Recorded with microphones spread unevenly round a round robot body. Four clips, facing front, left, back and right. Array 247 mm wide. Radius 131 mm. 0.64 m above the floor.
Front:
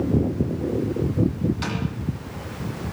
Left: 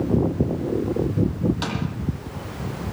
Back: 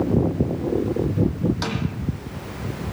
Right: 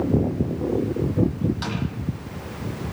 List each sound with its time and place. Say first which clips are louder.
1.6 s a snare drum: left 2 dB, back 1 dB; 130° left, 8.5 m